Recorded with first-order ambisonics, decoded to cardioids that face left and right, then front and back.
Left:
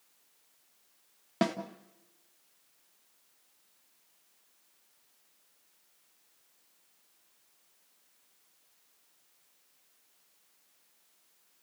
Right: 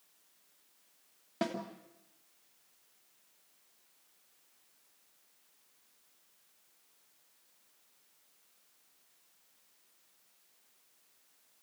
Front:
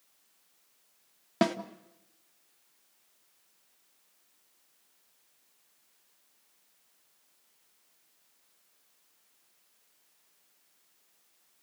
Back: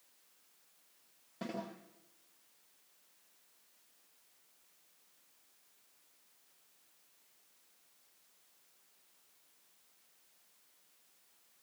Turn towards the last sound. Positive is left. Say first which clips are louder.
# left 5 dB, front 16 dB
turn(degrees=25)